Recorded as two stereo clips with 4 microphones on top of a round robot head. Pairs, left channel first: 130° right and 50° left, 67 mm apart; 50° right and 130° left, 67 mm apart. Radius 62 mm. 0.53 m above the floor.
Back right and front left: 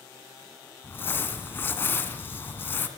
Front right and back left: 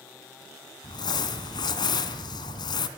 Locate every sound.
0.8 s crumpling: 65° right, 2.5 m